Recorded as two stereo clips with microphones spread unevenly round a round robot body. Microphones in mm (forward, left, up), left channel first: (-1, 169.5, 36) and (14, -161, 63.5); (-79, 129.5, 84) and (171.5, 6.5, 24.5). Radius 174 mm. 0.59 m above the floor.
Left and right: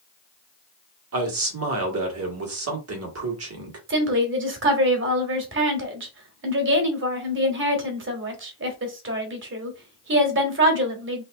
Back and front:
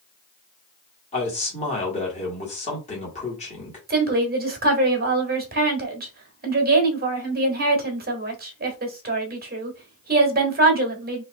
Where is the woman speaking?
45° right, 1.5 m.